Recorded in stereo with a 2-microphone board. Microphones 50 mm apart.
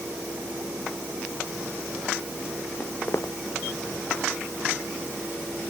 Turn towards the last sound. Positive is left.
turn(degrees=50)  # may be behind; listen again after turning